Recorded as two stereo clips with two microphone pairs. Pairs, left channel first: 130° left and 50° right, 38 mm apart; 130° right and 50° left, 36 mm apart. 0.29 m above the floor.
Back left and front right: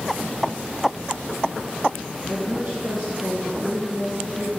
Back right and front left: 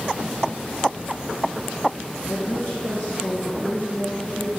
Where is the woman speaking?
155° right, 4.5 m.